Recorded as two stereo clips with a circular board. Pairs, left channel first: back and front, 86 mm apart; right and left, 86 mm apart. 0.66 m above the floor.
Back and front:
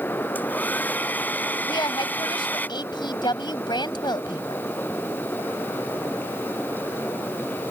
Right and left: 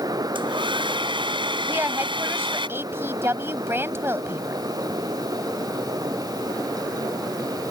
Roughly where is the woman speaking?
Behind left.